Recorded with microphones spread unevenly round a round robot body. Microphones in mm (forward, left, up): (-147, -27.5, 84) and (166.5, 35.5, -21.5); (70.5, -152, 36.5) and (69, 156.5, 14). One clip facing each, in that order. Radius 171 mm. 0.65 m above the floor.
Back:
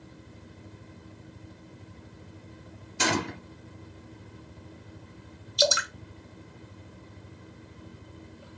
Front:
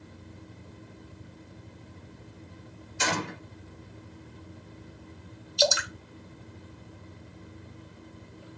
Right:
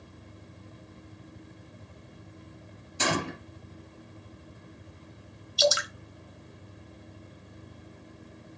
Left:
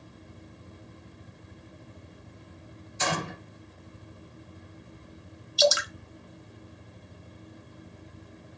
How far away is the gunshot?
About 2 m.